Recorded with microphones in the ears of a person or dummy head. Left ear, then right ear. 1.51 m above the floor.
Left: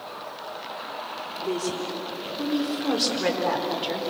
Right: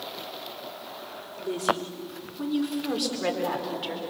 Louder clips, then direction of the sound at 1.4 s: Right 2 dB; 5° right (ahead or behind).